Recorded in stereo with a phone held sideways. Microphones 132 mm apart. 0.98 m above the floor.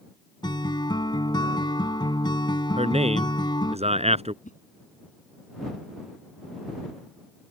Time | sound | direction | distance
0.4 | a guitar | 35° left (ahead or behind) | ?
2.8 | a man speaking | 55° right (ahead or behind) | ?
4.4 | a whoosh | 80° left | ?